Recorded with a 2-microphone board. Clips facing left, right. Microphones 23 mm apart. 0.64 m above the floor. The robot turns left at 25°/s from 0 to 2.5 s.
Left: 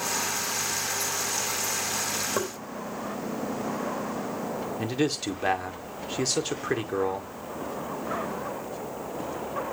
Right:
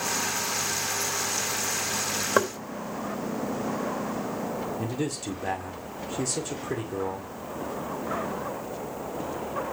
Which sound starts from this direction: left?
A man speaking, at 4.8 s.